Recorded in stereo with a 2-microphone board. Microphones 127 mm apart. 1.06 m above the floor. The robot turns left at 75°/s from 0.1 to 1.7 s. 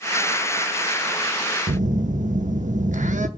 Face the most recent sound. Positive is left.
turn(degrees=-75)  # may be behind; listen again after turning